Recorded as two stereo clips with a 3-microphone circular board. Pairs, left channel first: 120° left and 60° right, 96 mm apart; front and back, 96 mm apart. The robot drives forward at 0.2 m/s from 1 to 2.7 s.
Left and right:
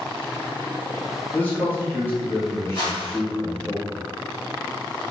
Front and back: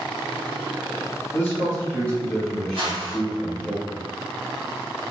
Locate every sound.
1.3 s a man speaking: 55° left, 1.1 m; by 3.7 s 75° left, 1.0 m
2.7 s a whoosh: 155° left, 1.5 m